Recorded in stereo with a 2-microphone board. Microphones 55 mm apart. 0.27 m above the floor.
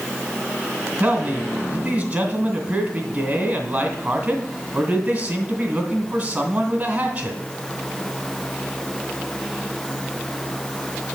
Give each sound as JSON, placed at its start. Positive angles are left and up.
{"t": 1.0, "sound": "a man speaking", "side_deg": -25, "distance_m": 2.5}